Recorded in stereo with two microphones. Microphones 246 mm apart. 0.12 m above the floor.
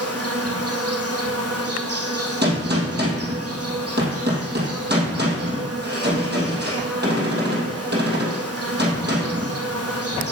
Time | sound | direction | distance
0.0 | an insect | 80° right | 1.4 m
2.4 | a gunshot | 45° right (ahead or behind) | 2.5 m